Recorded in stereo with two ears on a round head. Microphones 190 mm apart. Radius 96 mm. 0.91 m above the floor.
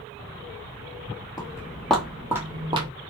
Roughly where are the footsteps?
Centre.